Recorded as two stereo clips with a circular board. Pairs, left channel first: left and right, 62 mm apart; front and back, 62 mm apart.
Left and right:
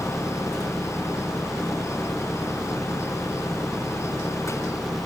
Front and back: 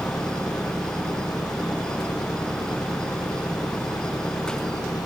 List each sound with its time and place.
0.0 s an engine running: straight ahead